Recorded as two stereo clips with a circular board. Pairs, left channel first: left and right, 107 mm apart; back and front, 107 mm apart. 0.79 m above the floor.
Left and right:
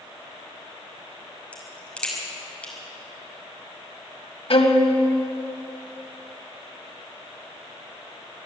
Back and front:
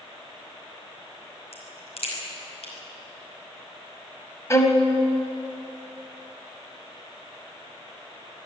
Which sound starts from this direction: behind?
A crack, at 1.5 s.